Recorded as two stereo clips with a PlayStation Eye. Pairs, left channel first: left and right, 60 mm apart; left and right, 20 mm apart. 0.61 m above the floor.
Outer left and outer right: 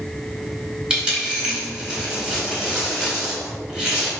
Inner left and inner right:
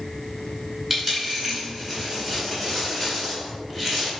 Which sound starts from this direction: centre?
A dropped coin, at 0.9 s.